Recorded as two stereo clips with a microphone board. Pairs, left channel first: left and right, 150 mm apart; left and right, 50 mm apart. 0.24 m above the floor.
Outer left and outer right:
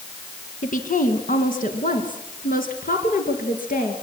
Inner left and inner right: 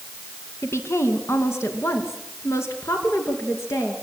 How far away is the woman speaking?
About 2 m.